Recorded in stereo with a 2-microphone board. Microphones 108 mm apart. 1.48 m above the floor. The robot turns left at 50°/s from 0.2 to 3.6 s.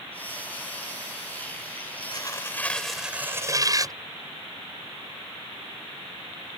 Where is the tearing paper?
40° left; by 4.0 s 35° right.